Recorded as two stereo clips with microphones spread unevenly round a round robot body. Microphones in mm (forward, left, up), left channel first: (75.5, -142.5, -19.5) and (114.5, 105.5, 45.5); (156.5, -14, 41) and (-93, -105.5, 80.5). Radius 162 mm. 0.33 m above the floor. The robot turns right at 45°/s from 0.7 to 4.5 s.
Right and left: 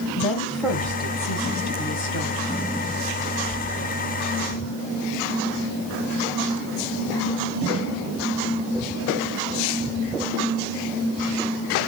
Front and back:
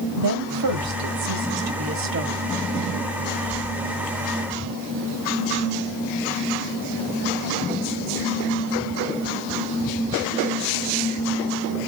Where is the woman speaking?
Straight behind, 1.6 m; by 2.6 s 95° right, 1.6 m.